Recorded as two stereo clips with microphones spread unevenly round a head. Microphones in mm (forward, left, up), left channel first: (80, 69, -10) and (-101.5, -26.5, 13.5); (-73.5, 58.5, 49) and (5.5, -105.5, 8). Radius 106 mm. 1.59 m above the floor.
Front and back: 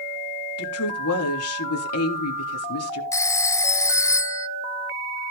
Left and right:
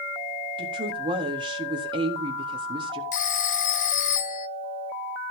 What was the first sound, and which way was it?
A woman speaking, 5° left.